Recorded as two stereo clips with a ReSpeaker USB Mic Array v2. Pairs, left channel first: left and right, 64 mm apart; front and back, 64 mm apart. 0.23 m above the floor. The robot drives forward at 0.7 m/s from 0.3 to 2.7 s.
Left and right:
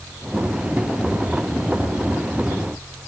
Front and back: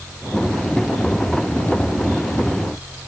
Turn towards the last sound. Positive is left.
No sound to turn to.